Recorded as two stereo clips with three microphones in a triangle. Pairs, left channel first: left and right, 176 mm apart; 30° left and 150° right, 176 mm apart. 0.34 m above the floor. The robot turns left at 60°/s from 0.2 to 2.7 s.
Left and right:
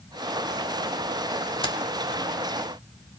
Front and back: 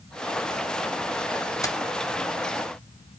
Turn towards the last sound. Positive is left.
turn(degrees=20)